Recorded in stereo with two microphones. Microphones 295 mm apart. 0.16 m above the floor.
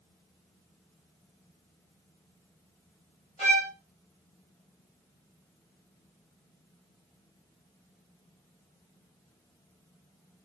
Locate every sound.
3.4 s a violin: 20° left (ahead or behind), 3.5 m